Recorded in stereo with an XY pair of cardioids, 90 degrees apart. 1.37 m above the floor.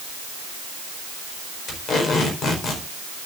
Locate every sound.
1.7 s tape being pulled: 60° left, 4.5 m